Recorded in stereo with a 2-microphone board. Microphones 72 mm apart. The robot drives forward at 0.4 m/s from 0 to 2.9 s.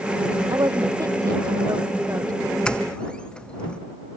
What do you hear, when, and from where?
0.5 s a woman speaking: 55° right (ahead or behind); by 2.4 s 50° right (ahead or behind)
2.6 s a doorbell: 15° left (ahead or behind)